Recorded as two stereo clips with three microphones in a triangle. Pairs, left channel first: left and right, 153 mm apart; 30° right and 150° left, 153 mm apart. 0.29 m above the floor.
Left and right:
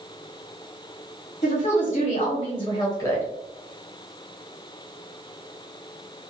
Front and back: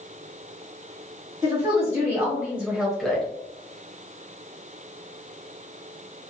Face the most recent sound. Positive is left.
turn(degrees=40)